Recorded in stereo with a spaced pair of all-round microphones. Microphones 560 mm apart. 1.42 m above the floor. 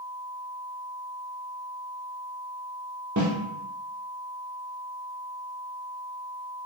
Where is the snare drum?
35° right (ahead or behind), 0.6 m.